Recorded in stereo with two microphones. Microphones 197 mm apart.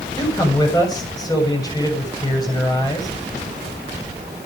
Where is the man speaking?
20° left (ahead or behind), 7 m.